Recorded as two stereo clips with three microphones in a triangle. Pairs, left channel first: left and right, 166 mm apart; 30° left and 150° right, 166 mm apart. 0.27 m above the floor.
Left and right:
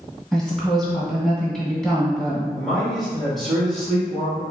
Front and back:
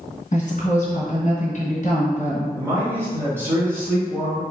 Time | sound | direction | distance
0.3 | a woman speaking | 5° left | 1.8 m
2.6 | a man speaking | straight behind | 1.6 m